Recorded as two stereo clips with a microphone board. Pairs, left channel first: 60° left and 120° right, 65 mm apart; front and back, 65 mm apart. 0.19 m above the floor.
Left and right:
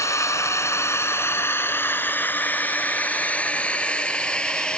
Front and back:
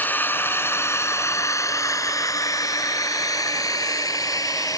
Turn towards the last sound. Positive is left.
turn(degrees=-15)